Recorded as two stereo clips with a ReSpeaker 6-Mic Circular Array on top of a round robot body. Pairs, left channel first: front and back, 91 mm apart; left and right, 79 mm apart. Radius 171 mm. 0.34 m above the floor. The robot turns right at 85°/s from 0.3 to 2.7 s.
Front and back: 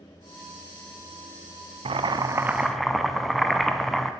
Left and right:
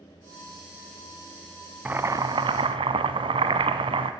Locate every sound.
1.9 s boiling: 160° right, 0.7 m; by 4.1 s 90° right, 0.7 m